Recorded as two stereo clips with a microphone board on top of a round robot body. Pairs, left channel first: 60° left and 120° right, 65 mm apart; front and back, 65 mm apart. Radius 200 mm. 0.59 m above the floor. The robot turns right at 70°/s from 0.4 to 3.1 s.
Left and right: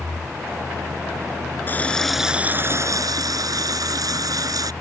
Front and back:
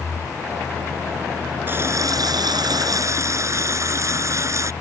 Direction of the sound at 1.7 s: 120° left.